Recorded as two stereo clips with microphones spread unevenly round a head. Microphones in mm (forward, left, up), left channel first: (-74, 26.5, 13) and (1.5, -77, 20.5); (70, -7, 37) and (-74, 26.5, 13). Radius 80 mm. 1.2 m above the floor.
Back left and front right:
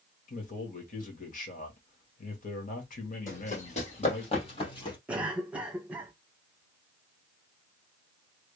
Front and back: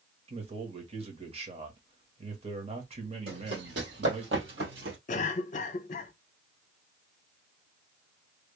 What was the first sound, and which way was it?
A man speaking, 125° left.